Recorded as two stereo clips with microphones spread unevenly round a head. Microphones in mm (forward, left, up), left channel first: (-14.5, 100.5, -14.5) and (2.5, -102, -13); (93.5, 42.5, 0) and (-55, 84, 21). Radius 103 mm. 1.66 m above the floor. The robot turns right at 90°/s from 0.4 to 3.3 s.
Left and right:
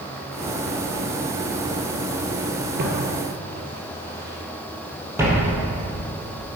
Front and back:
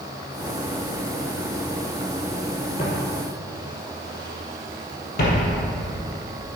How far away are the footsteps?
About 2.5 m.